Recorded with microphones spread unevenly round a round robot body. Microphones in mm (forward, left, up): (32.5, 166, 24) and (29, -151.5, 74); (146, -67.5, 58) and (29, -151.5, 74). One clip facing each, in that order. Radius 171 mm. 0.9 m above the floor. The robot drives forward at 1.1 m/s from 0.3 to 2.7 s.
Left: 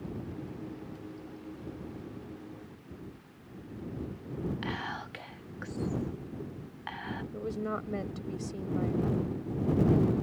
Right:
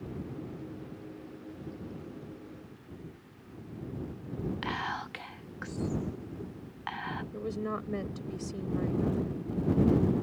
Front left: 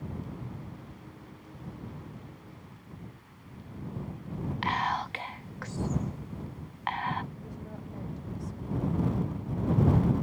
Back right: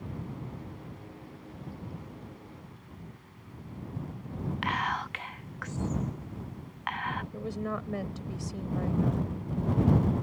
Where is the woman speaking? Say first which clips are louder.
Right 1 dB, back right 9 dB; 175° right.